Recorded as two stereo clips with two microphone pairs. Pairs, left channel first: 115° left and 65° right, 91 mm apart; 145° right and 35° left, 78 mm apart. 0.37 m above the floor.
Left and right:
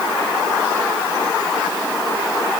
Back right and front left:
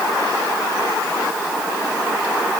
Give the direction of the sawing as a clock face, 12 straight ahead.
I don't hear sawing.